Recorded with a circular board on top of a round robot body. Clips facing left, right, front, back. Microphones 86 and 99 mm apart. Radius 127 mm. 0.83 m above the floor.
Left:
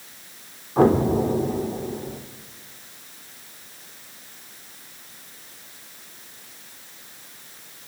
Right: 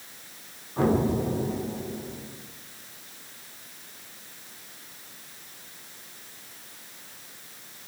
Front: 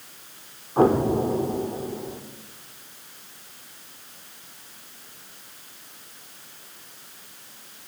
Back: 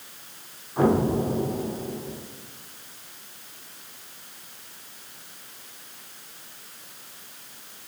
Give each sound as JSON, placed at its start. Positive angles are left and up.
{"t": 0.8, "sound": "an explosion", "azimuth_deg": 50, "distance_m": 3.0}